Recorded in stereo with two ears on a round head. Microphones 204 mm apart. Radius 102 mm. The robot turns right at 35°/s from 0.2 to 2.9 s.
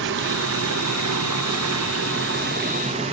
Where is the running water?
125° right, 0.8 m; by 3.1 s 30° right, 0.8 m.